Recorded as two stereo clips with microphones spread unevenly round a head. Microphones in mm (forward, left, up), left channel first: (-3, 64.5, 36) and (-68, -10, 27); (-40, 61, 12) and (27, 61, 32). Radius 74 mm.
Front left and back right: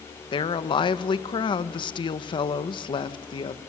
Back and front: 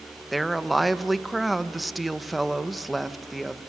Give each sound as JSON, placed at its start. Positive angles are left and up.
{"t": 0.3, "sound": "a woman speaking", "azimuth_deg": 85, "distance_m": 1.4}